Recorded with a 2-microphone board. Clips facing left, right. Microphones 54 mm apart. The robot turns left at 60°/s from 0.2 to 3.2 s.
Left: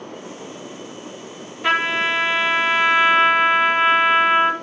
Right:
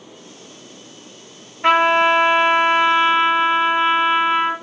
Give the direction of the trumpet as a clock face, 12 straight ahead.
4 o'clock.